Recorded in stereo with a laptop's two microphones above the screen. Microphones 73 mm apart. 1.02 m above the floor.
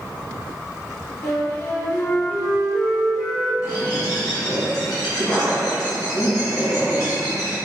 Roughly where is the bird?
Left.